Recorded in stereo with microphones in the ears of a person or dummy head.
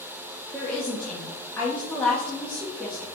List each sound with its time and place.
0.5 s a woman speaking: 5° left (ahead or behind), 1.6 m